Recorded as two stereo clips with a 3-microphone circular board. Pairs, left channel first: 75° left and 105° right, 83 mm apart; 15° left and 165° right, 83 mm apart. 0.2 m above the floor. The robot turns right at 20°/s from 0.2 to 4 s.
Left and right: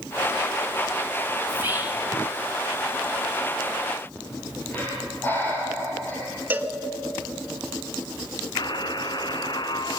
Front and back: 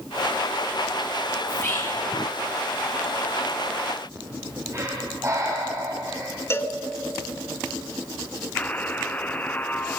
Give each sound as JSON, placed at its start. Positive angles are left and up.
{"t": 1.5, "sound": "whispering", "azimuth_deg": -45, "distance_m": 2.5}
{"t": 4.2, "sound": "breathing", "azimuth_deg": 140, "distance_m": 5.0}
{"t": 6.5, "sound": "a cowbell", "azimuth_deg": -35, "distance_m": 1.5}
{"t": 8.6, "sound": "a buzzer", "azimuth_deg": 85, "distance_m": 1.4}